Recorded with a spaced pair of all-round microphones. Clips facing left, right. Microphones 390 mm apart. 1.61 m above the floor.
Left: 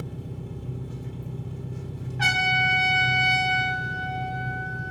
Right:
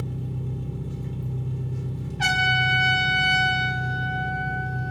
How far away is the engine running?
About 0.9 m.